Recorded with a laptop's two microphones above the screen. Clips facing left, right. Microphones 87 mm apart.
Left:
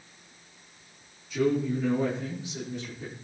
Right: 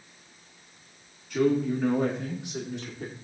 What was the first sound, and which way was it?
A man speaking, 65° right (ahead or behind).